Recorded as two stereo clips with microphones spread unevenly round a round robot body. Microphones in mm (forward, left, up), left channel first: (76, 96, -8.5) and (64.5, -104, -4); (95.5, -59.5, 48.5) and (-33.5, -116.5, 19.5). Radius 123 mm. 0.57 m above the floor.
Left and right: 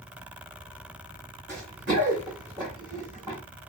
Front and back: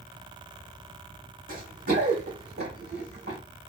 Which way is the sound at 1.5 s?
140° right.